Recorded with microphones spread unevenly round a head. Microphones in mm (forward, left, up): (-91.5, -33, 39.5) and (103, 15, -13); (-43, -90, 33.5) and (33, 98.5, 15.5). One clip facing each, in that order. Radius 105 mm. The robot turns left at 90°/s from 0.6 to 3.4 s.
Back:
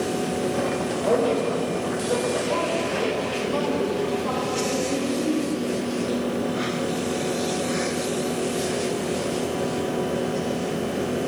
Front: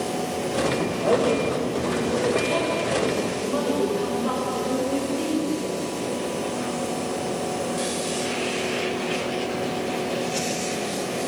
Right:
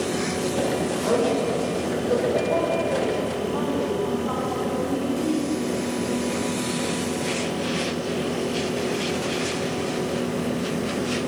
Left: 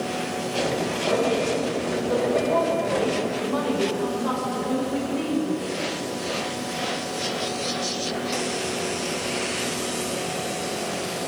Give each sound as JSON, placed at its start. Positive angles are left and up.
{"t": 1.0, "sound": "a woman speaking", "azimuth_deg": -70, "distance_m": 8.0}